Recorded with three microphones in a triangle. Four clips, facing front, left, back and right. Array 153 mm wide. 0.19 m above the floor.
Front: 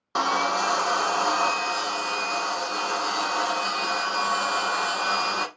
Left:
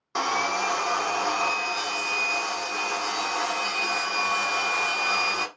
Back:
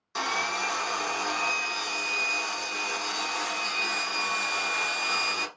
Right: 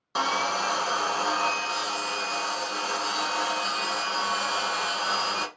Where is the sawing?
5° left, 1.0 m.